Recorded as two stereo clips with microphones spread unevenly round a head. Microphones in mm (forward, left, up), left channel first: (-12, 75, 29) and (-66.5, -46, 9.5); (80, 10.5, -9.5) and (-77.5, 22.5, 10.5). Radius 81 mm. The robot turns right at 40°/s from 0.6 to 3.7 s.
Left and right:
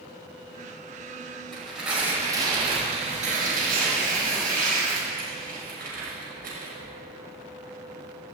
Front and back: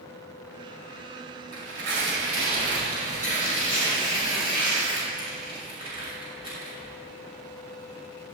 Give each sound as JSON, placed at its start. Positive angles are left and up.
{"t": 1.5, "sound": "tearing paper", "azimuth_deg": 150, "distance_m": 6.0}